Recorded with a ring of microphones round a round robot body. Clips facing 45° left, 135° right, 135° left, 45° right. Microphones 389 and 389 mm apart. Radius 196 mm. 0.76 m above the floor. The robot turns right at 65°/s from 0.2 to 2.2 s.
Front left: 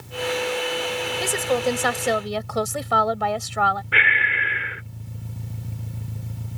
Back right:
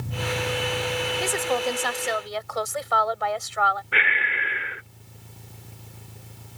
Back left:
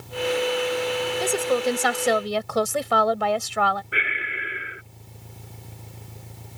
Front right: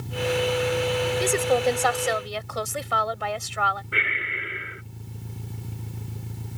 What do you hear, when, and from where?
0.0 s an engine running: 110° right; by 6.6 s 20° left
1.2 s a woman speaking: 30° left; by 3.8 s 95° left
3.9 s breathing: 40° left